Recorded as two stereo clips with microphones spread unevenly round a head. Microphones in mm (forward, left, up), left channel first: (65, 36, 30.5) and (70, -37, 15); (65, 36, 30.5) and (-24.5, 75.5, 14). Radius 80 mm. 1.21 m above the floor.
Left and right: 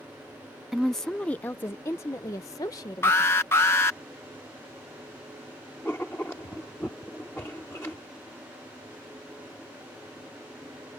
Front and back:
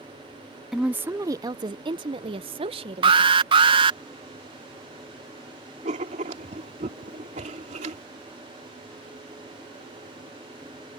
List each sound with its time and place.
0.7 s a woman speaking: 140° right; by 3.5 s 150° left
3.0 s an alarm: 165° left
5.8 s writing: 165° left